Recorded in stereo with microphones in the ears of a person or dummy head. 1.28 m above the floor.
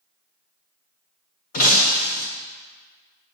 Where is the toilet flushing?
No toilet flushing in this recording.